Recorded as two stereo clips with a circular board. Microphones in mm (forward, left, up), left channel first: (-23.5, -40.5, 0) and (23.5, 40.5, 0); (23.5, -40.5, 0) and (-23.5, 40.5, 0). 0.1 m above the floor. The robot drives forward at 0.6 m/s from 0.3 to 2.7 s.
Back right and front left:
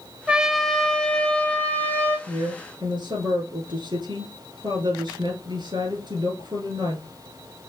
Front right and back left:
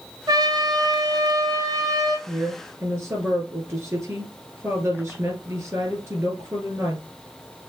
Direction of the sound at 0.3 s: 135° left.